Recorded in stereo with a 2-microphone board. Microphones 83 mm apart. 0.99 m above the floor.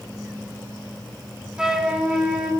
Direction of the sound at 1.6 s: 10° right (ahead or behind).